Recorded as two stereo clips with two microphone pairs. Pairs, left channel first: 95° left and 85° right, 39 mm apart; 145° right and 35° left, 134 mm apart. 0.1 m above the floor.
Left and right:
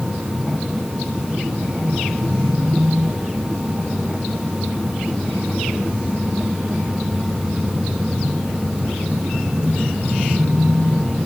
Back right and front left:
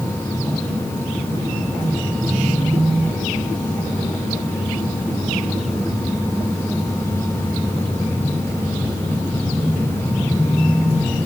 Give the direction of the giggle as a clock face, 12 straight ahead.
I don't hear a giggle.